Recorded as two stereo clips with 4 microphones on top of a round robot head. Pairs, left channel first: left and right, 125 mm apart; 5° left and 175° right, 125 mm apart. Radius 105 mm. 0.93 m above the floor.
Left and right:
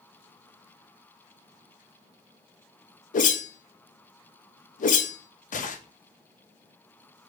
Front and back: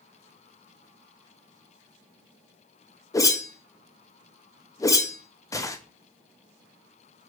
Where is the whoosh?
70° left, 0.6 m.